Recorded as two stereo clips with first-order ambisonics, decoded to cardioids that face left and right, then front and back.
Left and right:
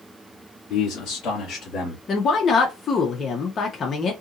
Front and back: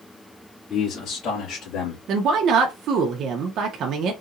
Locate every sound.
0.7 s a man speaking: 60° left, 2.5 m; by 2.0 s 35° left, 2.5 m
2.1 s a woman speaking: 145° left, 0.7 m